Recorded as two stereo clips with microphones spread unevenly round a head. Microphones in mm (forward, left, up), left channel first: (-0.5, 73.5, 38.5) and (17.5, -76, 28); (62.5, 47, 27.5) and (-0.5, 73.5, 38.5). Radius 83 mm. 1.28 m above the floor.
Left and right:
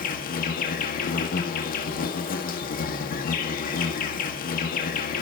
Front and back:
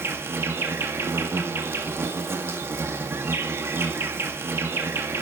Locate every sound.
0.0 s an insect: 105° left, 2.0 m